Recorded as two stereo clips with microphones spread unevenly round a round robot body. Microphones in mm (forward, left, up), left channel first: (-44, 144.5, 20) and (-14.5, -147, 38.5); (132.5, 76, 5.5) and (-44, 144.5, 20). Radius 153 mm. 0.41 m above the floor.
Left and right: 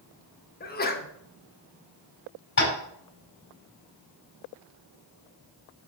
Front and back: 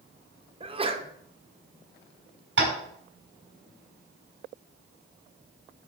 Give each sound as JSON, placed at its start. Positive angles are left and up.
{"t": 0.6, "sound": "a sneeze", "azimuth_deg": 110, "distance_m": 1.3}
{"t": 2.6, "sound": "tapping", "azimuth_deg": 145, "distance_m": 4.5}